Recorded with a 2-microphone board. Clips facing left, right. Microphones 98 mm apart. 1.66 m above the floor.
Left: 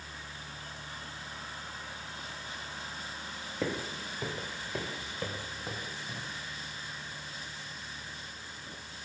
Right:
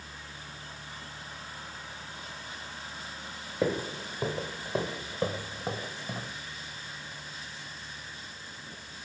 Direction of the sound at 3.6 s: 15° right (ahead or behind).